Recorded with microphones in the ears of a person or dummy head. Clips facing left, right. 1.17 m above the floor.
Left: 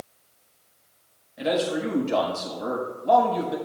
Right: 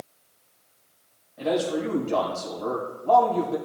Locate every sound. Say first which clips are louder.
1.4 s a man speaking: even; 25° left (ahead or behind), 5.5 m